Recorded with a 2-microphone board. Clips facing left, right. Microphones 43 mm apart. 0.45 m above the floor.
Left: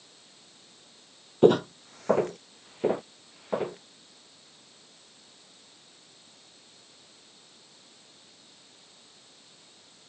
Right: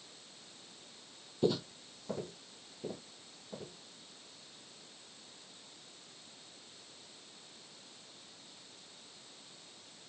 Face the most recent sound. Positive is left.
turn(degrees=70)  # may be behind; listen again after turning